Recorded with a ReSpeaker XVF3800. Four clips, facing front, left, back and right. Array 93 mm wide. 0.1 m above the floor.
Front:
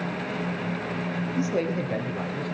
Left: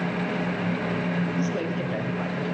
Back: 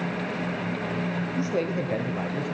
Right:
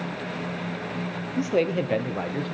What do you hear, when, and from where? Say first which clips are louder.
1.4 s a man speaking: right 4 dB, front 1 dB; 85° right, 2.5 m; by 2.5 s 110° right, 3 m